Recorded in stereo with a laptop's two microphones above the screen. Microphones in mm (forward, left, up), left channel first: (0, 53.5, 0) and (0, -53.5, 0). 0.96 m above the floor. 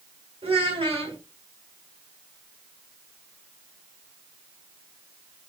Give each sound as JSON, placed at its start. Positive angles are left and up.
{"t": 0.4, "sound": "a child speaking", "side_deg": -55, "distance_m": 1.7}